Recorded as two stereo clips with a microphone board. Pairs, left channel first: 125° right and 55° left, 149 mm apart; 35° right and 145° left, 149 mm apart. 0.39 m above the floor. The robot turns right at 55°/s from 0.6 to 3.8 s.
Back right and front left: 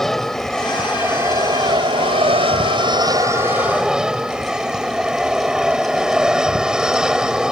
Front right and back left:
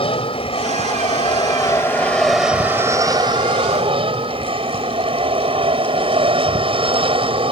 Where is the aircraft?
40° right; by 7.5 s 140° left.